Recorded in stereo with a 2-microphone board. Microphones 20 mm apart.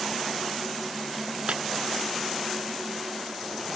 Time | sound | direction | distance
1.5 | breaking glass | 80° right | ?